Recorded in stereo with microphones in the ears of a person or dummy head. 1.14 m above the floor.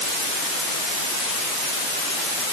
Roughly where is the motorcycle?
No motorcycle in this recording.